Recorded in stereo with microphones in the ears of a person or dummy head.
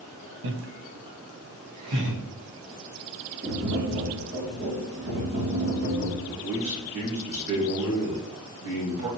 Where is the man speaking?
65° right (ahead or behind), 1.7 m.